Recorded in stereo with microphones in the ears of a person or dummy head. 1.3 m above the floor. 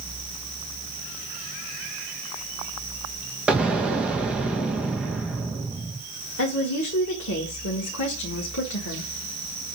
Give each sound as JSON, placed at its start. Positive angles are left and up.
{"t": 3.5, "sound": "an explosion", "side_deg": -10, "distance_m": 1.9}
{"t": 6.4, "sound": "a woman speaking", "side_deg": 75, "distance_m": 1.7}